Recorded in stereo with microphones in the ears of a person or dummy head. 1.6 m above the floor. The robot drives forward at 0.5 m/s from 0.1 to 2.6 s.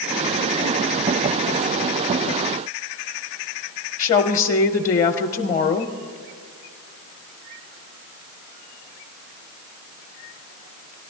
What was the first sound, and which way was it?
A woman speaking, 35° left (ahead or behind).